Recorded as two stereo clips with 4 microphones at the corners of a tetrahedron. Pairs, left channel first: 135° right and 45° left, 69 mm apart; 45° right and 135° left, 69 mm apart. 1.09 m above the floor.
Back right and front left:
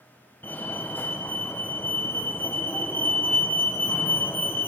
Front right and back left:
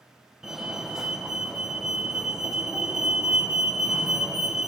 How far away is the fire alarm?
About 1.1 m.